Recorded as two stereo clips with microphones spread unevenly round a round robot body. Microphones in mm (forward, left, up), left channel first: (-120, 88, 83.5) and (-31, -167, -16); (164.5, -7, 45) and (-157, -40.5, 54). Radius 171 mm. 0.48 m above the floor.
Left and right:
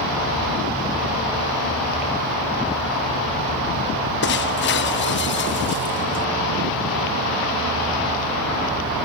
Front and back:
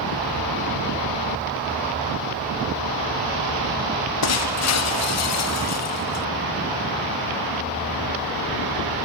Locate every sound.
4.2 s breaking glass: 50° left